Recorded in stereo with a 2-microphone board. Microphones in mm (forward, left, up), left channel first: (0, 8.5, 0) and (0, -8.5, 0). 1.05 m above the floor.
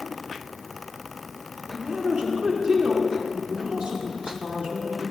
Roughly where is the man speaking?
Right.